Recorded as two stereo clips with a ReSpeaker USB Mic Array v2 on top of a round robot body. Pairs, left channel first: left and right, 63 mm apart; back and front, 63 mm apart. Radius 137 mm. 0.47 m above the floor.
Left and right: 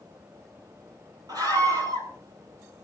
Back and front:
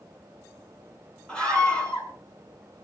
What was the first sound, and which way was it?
A scream, 105° right.